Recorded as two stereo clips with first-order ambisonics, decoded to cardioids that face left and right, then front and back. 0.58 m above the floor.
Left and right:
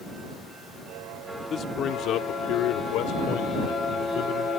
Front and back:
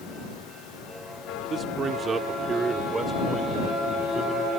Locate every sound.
1.5 s a man speaking: 130° left; by 4.5 s 105° left